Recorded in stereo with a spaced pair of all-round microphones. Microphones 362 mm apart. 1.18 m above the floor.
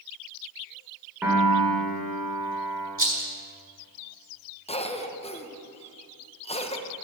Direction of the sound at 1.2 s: 5° right (ahead or behind).